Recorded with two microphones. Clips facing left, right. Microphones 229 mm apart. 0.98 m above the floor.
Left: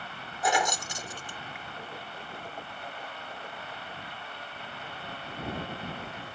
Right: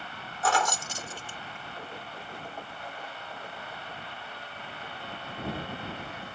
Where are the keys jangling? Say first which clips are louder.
Even; 15° left (ahead or behind).